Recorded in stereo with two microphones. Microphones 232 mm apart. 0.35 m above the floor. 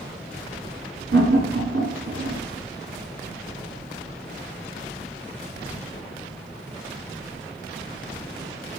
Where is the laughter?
75° right (ahead or behind), 3 m.